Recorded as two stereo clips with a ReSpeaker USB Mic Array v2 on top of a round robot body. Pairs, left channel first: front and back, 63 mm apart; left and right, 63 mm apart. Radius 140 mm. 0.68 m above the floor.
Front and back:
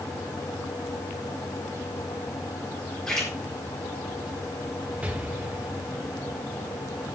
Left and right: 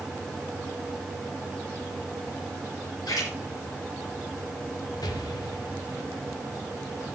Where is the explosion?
110° left, 0.7 m.